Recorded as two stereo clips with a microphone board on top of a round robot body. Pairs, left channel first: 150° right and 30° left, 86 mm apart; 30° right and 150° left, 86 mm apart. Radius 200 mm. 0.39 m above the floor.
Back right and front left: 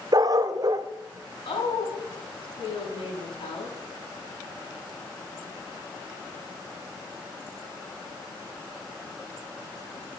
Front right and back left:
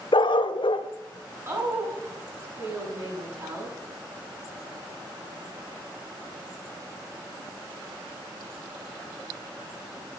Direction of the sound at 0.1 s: 10° right.